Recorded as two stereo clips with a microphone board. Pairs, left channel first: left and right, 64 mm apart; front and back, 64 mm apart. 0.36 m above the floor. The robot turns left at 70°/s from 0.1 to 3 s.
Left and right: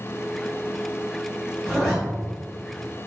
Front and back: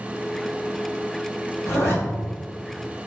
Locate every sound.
1.6 s a zipper: 20° left, 1.4 m; by 1.9 s straight ahead, 1.4 m